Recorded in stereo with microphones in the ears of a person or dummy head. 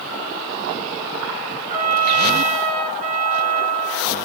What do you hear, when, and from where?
1.7 s a trumpet: 40° right (ahead or behind), 2.5 m